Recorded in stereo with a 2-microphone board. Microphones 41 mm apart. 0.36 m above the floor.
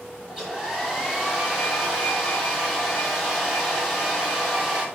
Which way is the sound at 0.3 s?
15° right (ahead or behind).